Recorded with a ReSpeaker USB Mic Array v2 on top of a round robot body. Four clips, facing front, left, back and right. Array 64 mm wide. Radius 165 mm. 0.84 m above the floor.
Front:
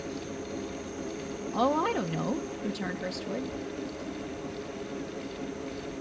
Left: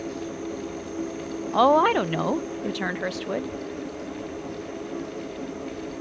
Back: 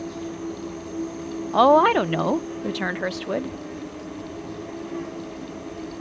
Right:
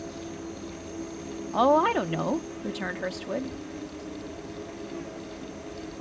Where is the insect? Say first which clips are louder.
Left 5 dB, back 6 dB; 160° left, 3.5 m.